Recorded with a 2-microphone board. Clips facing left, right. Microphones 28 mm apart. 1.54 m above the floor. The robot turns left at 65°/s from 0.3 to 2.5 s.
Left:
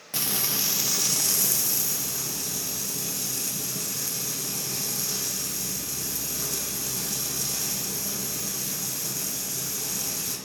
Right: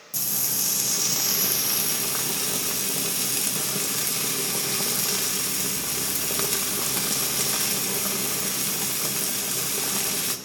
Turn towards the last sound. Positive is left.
turn(degrees=-95)